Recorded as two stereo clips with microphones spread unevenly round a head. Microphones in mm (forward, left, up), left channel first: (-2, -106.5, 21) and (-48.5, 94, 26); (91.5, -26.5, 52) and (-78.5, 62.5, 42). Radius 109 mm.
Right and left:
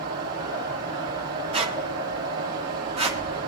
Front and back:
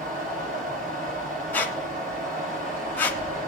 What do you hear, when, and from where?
0.0 s a fan: 105° left, 2 m
1.5 s a squeak: 45° left, 1.0 m